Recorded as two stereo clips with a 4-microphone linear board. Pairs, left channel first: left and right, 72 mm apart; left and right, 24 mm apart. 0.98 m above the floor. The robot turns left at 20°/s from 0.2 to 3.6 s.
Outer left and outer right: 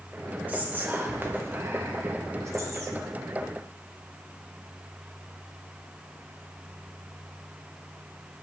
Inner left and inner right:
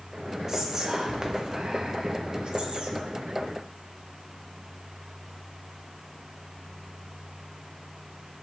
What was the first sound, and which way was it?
Whispering, 30° right.